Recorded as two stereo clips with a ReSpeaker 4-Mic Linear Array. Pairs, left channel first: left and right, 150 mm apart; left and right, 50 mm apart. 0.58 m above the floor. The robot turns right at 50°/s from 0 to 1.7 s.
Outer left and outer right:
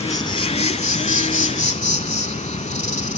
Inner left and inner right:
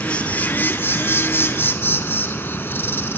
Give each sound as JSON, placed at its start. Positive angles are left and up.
{"t": 0.0, "sound": "an insect", "azimuth_deg": 25, "distance_m": 0.7}